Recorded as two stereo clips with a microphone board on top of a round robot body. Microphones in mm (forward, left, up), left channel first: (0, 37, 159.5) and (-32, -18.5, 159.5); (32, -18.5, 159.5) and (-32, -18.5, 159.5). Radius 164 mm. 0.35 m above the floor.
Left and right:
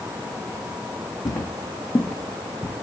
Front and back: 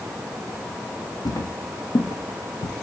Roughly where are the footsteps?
Ahead left.